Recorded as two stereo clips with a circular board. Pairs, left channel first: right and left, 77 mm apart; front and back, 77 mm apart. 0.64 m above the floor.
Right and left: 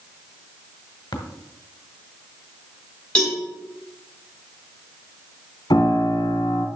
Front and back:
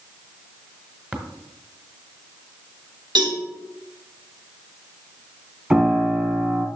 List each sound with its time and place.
1.1 s tapping: 110° right, 1.4 m
3.1 s a cowbell: 165° right, 3.5 m
5.7 s a piano: 110° right, 1.7 m